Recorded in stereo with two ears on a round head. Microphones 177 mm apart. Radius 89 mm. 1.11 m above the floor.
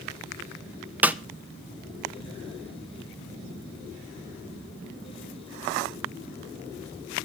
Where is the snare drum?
10° right (ahead or behind), 0.7 m.